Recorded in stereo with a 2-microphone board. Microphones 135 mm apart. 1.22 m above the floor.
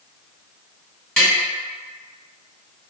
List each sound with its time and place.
1.2 s tapping: 5° left (ahead or behind), 1.6 m